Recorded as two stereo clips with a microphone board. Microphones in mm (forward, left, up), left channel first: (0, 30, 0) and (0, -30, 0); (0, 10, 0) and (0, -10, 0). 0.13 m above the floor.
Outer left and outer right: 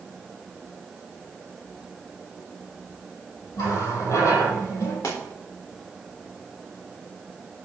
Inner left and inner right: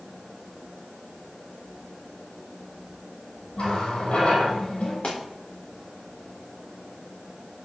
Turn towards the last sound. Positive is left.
turn(degrees=85)